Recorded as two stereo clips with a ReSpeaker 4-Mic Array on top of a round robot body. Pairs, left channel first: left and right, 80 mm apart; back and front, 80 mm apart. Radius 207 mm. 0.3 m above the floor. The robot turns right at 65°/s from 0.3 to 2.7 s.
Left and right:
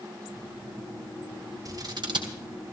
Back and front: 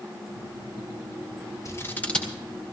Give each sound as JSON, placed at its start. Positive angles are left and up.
{"t": 1.6, "sound": "scissors", "azimuth_deg": -135, "distance_m": 3.5}